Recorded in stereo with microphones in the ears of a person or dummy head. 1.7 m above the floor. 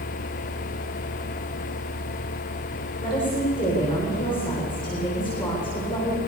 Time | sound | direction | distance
3.0 | a woman speaking | 20° left (ahead or behind) | 7.5 m